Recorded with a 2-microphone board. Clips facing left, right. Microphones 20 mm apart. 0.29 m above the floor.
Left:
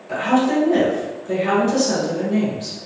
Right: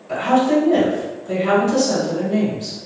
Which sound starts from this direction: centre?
A woman speaking, at 0.1 s.